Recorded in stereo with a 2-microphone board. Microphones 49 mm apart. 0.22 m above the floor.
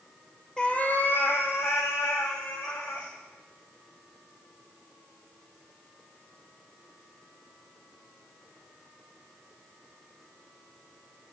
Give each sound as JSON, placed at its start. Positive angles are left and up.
{"t": 0.6, "sound": "a cat meowing", "side_deg": 15, "distance_m": 0.8}